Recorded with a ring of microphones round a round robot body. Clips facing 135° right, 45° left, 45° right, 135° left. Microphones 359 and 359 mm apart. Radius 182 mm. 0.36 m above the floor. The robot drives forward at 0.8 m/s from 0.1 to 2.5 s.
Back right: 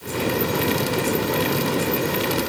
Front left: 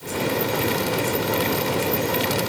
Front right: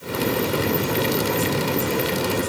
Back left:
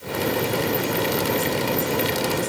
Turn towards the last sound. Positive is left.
No sound to turn to.